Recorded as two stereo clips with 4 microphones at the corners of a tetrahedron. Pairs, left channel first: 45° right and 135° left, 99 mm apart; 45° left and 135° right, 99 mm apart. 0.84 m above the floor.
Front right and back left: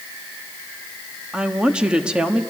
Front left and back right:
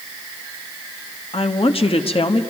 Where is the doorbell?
I don't hear a doorbell.